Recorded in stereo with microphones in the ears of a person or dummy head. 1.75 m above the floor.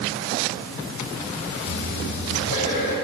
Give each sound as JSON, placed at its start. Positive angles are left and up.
{"t": 1.7, "sound": "breathing", "side_deg": 60, "distance_m": 4.5}